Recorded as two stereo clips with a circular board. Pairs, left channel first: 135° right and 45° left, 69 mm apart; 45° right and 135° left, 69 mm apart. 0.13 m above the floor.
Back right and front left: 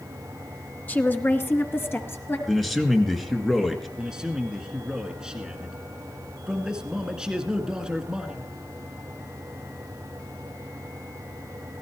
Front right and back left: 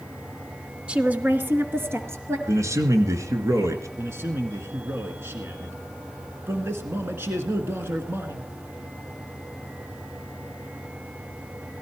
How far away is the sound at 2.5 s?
About 2.0 m.